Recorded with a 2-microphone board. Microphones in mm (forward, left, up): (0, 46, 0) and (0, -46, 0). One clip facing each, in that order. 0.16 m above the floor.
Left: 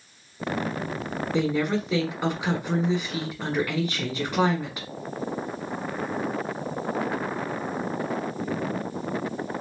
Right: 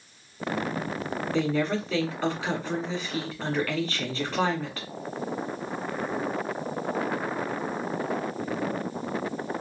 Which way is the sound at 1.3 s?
15° left (ahead or behind).